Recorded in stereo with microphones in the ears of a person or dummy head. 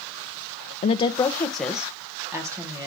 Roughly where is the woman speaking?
Left.